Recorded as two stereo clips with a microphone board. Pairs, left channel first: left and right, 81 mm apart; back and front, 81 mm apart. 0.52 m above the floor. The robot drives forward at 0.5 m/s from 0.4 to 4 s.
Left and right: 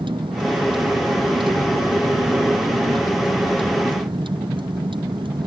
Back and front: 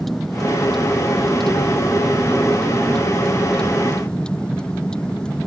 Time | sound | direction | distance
0.0 | a vehicle | 90° right | ?